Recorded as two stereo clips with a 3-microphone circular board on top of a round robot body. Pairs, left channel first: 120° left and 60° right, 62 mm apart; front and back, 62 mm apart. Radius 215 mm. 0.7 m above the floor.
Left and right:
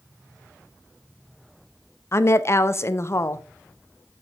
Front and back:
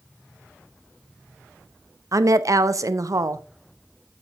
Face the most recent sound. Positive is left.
turn(degrees=160)